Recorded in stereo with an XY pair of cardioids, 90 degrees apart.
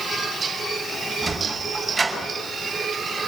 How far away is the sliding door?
About 8.5 m.